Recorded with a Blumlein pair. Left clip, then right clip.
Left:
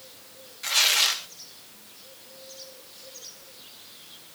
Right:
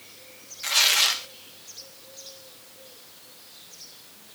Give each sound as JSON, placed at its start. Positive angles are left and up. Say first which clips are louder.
{"t": 0.6, "sound": "tearing paper", "louder": "right 1 dB", "azimuth_deg": -5, "distance_m": 0.6}